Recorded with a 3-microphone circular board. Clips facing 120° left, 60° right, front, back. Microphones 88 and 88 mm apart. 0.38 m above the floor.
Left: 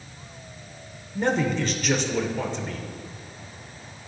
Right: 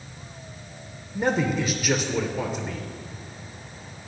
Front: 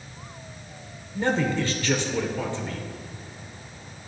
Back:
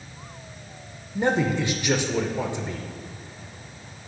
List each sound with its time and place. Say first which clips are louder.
1.1 s a man speaking: even, back 1 dB; 135° right, 0.8 m